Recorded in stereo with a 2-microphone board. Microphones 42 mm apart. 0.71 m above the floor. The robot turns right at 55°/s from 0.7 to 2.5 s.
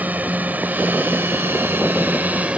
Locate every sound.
0.0 s a drone: 35° right (ahead or behind); by 2.6 s 30° right (ahead or behind)